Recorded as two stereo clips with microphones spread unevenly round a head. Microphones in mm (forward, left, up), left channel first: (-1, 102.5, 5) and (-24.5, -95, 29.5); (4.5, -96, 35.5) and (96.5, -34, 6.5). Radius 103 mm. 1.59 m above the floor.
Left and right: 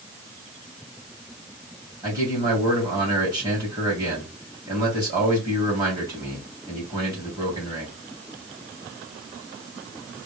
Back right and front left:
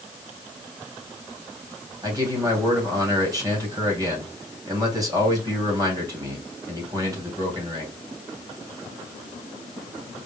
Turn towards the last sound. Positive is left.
turn(degrees=-25)